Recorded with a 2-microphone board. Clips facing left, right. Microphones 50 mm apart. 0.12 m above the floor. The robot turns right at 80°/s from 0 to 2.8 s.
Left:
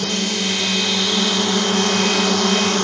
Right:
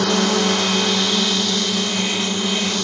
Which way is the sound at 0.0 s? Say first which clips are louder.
Right 5 dB; 90° right.